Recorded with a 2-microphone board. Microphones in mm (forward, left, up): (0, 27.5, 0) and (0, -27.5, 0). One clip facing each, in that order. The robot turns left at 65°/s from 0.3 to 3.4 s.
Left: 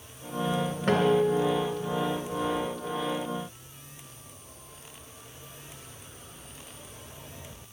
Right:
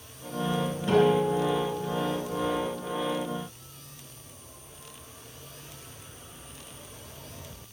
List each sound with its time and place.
0.9 s a guitar: 80° left, 3 m; by 2.8 s 45° right, 3 m